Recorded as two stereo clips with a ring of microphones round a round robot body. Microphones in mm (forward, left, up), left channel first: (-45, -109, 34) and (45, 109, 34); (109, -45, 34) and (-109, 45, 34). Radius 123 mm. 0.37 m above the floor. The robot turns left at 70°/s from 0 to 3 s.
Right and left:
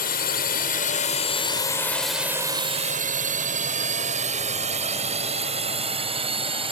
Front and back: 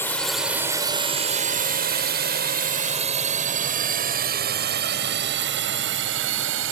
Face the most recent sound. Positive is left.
turn(degrees=135)